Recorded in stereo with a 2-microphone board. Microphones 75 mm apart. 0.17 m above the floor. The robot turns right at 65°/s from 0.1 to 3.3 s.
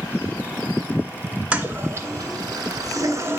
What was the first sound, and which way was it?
A toilet flushing, 160° right.